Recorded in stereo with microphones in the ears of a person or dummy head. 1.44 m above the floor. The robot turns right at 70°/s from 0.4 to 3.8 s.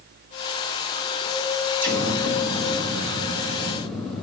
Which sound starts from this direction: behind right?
An explosion, at 1.8 s.